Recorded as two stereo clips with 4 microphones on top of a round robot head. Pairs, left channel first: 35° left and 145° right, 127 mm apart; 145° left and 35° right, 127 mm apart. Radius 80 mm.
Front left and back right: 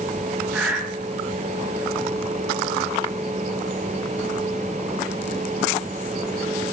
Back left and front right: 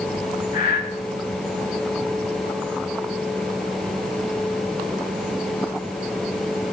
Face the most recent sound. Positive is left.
turn(degrees=135)